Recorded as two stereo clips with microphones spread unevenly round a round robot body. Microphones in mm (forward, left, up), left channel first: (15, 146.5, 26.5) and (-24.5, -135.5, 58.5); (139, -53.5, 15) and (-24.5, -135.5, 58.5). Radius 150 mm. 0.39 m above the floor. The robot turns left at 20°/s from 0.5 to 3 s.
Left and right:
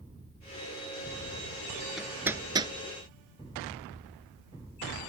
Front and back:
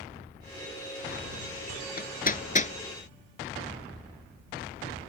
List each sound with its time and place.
2.0 s hammering: 10° right; by 2.7 s 25° right